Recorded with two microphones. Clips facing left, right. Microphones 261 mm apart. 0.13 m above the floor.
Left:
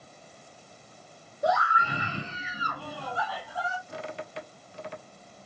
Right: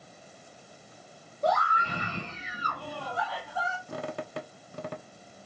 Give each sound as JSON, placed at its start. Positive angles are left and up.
{"t": 1.4, "sound": "a scream", "side_deg": 10, "distance_m": 1.3}
{"t": 3.9, "sound": "a squeak", "side_deg": -60, "distance_m": 0.6}